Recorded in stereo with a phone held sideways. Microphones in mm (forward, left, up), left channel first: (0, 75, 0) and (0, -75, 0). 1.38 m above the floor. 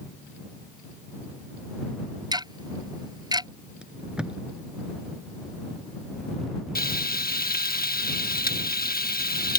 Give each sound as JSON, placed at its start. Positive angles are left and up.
{"t": 2.3, "sound": "ticking", "side_deg": -25}
{"t": 3.8, "sound": "tape being pulled", "side_deg": -5}
{"t": 6.8, "sound": "frying", "side_deg": 80}